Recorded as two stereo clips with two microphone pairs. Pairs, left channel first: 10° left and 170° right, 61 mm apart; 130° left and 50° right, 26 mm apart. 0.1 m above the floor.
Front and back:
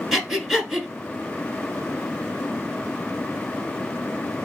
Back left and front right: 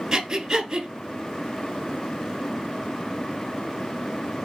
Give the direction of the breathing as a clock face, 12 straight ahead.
3 o'clock.